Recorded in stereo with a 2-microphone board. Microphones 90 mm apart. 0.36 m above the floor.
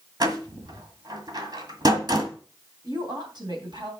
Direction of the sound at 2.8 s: 55° right (ahead or behind).